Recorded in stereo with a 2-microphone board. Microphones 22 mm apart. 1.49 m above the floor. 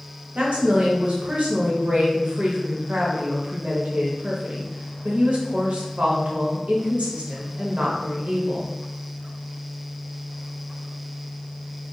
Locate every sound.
0.3 s a woman speaking: 85° right, 0.9 m